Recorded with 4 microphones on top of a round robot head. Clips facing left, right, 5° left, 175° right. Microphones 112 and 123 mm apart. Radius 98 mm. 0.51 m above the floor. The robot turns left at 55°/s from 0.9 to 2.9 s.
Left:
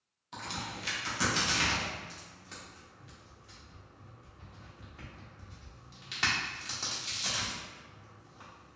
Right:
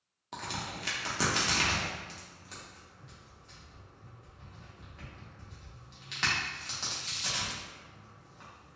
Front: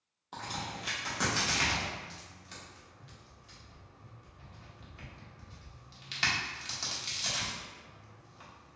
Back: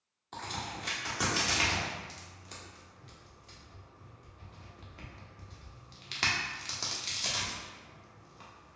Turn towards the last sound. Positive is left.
turn(degrees=170)